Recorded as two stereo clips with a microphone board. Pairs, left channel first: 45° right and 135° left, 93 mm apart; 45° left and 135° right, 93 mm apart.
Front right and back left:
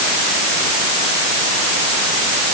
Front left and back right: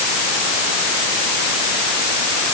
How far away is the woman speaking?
No woman speaking in this recording.